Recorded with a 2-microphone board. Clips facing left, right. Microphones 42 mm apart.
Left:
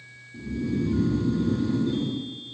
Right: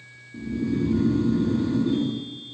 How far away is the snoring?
About 1.3 m.